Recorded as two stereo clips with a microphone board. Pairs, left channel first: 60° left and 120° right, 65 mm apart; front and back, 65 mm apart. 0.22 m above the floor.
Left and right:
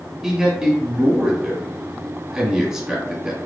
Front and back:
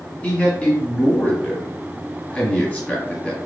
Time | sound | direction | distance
0.2 | a man speaking | 50° right | 1.3 m